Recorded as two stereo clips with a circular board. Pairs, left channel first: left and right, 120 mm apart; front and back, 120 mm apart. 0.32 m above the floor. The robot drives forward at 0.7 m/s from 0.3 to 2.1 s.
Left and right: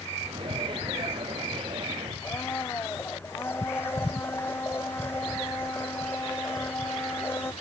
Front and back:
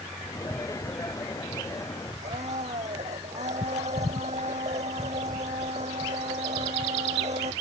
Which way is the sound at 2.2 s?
160° left.